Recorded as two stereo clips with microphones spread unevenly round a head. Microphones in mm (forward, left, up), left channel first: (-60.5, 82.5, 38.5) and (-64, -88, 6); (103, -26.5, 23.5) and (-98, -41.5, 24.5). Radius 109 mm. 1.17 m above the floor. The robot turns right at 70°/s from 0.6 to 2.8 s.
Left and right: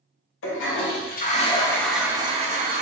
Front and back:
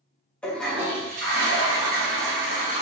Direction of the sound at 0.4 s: 90° left.